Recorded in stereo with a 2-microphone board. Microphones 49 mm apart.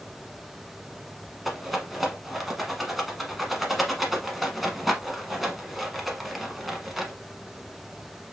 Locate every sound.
1.4 s a rattle: centre (ahead or behind), 0.8 m